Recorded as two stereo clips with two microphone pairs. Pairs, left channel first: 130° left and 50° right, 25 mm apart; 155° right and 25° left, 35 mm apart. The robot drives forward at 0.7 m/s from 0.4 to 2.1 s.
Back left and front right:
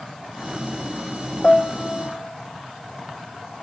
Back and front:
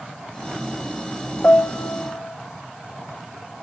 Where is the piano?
175° left, 0.5 m; by 2.4 s straight behind, 0.9 m.